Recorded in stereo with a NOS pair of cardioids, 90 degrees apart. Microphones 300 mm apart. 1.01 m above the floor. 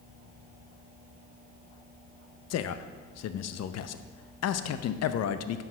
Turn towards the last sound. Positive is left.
turn(degrees=60)